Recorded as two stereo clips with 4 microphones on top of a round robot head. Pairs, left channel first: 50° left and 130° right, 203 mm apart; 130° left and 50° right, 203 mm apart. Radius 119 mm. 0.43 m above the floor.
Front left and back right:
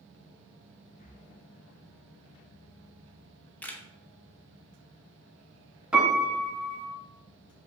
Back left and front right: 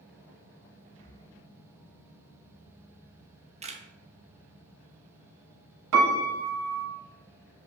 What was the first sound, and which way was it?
Breathing, 70° left.